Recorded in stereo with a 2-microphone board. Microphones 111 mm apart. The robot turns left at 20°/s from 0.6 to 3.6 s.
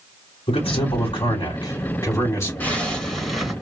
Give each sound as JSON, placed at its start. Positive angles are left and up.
{"t": 0.5, "sound": "a man speaking", "azimuth_deg": 60, "distance_m": 2.5}
{"t": 2.6, "sound": "a zipper", "side_deg": 15, "distance_m": 2.5}